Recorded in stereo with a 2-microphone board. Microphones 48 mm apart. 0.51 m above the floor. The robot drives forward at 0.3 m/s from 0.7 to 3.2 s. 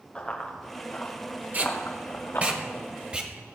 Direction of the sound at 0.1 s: 20° left (ahead or behind).